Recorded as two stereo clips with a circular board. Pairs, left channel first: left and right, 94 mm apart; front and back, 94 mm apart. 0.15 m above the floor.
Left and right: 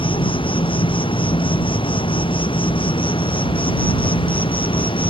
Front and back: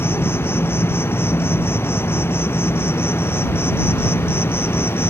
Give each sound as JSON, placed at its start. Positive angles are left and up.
{"t": 0.0, "sound": "an insect", "azimuth_deg": 65}